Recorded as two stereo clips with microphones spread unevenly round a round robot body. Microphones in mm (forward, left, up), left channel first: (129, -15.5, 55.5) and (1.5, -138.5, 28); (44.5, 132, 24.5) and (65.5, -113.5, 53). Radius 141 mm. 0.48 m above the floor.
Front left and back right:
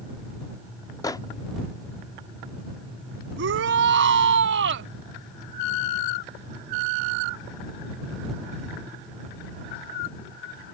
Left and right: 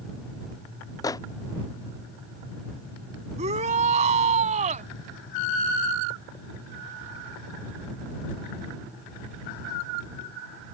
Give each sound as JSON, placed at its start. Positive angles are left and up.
{"t": 1.0, "sound": "a microwave", "azimuth_deg": 105}
{"t": 3.4, "sound": "a shout", "azimuth_deg": -150}